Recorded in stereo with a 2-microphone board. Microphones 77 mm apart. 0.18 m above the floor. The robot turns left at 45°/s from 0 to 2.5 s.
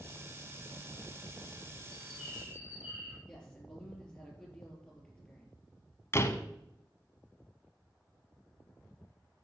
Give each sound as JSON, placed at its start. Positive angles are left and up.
{"t": 1.9, "sound": "a bird", "side_deg": 5, "distance_m": 3.0}
{"t": 3.3, "sound": "a man speaking", "side_deg": 10, "distance_m": 5.0}
{"t": 6.1, "sound": "a door slam", "side_deg": 35, "distance_m": 1.0}